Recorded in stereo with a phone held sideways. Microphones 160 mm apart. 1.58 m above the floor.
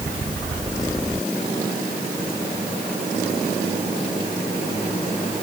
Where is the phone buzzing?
I don't hear a phone buzzing.